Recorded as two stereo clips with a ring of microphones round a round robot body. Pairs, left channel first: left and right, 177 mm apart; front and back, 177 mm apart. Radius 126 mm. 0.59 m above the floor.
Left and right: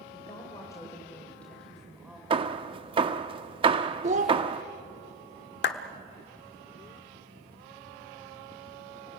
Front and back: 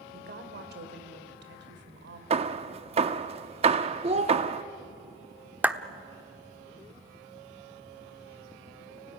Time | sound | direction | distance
0.1 | a woman speaking | 160° left | 2.5 m
2.3 | hammering | 140° right | 0.5 m
4.0 | a child speaking | 130° right | 0.8 m
5.6 | a clap | 100° left | 1.2 m